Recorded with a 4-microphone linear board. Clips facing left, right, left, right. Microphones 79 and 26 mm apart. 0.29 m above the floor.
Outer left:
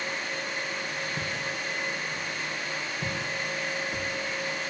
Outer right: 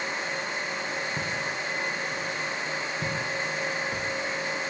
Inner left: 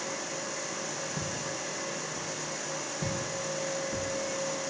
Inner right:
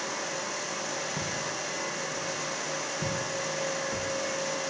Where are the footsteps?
85° right, 8.5 m; by 4.1 s 90° right, 11 m.